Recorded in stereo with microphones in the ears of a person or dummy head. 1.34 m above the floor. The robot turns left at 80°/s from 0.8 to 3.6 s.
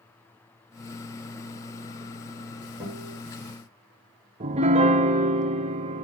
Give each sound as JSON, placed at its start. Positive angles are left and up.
{"t": 2.8, "sound": "a guitar", "side_deg": -10, "distance_m": 5.0}
{"t": 4.4, "sound": "a piano", "side_deg": -30, "distance_m": 0.6}